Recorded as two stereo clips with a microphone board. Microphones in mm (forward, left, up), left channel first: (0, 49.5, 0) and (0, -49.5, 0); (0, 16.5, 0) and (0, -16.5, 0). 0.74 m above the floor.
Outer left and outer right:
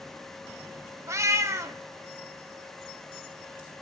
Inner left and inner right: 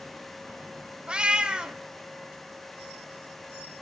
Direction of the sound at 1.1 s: 30° right (ahead or behind).